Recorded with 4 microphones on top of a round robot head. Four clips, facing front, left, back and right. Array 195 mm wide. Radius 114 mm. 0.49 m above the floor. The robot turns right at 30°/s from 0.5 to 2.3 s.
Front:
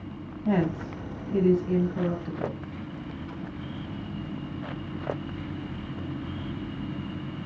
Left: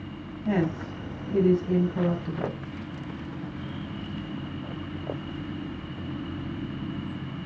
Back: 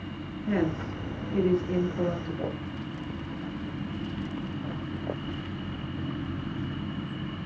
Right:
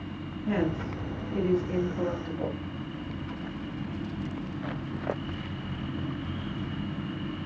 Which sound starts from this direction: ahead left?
A woman speaking, at 0.5 s.